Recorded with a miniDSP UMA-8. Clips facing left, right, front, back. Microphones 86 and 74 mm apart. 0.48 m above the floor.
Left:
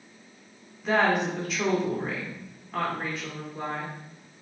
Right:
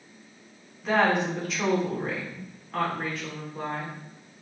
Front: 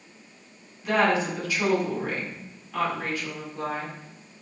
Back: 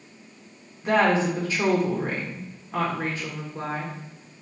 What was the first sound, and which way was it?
A woman speaking, straight behind.